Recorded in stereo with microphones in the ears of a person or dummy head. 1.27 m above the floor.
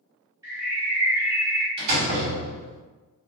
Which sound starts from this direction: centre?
A bird, at 0.4 s.